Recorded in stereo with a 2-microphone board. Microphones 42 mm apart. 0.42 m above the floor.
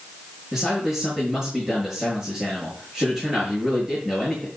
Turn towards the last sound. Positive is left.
turn(degrees=0)  # may be behind; listen again after turning